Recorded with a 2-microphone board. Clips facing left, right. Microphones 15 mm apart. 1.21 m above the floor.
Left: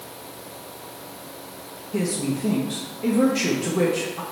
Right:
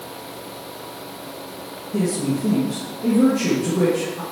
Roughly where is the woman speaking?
Left.